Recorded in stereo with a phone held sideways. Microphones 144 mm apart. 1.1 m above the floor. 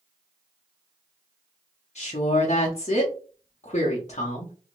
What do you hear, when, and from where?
1.9 s a woman speaking: 50° left (ahead or behind), 0.7 m